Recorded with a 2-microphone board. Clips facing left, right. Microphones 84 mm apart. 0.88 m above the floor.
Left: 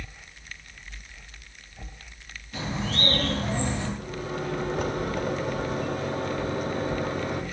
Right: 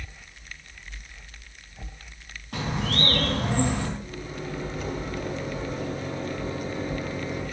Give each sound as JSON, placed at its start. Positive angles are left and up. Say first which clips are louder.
{"t": 2.5, "sound": "a bird", "louder": "right 2 dB", "side_deg": -75, "distance_m": 4.0}
{"t": 4.0, "sound": "a microwave", "louder": "left 4 dB", "side_deg": 75, "distance_m": 2.5}